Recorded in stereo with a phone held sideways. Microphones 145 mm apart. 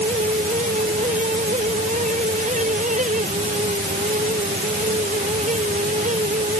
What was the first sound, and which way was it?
A fan, 60° right (ahead or behind).